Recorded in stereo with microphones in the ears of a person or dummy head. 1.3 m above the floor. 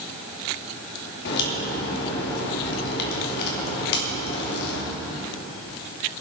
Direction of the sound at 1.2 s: 60° left (ahead or behind).